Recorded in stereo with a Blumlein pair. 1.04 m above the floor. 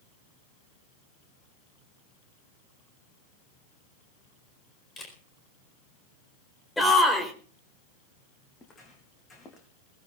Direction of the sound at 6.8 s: 5° left.